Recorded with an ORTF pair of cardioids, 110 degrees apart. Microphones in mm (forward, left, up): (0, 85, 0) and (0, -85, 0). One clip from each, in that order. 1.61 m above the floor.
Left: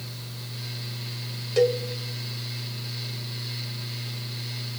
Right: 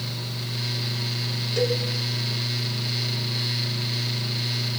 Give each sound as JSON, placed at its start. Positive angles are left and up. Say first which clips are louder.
{"t": 0.0, "sound": "a fan", "louder": "right 8 dB", "azimuth_deg": -50, "distance_m": 1.1}
{"t": 1.6, "sound": "a cowbell", "louder": "left 3 dB", "azimuth_deg": 20, "distance_m": 2.5}